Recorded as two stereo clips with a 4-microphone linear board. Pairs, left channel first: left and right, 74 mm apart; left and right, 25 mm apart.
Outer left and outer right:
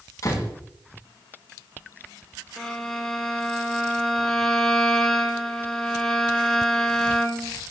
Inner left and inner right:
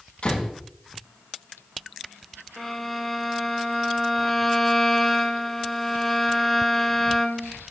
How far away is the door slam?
About 8 m.